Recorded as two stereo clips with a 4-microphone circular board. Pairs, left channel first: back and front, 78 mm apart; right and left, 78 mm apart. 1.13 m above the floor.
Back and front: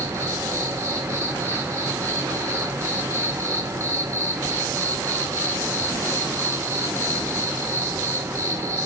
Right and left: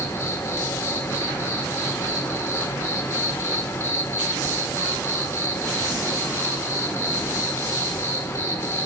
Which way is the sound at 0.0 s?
45° right.